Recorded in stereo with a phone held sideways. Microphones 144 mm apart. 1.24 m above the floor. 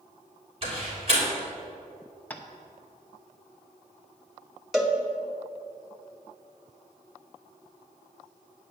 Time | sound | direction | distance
0.6 | a door slam | 45° right (ahead or behind) | 3.5 m
2.3 | tapping | 10° left (ahead or behind) | 0.8 m
4.7 | a cowbell | centre (ahead or behind) | 0.9 m